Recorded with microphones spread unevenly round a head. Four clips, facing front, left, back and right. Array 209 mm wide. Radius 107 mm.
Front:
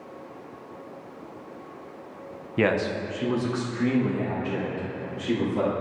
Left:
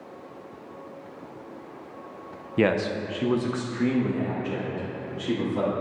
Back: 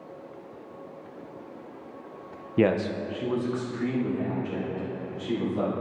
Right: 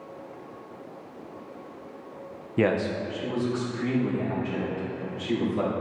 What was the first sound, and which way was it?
A man speaking, 165° right.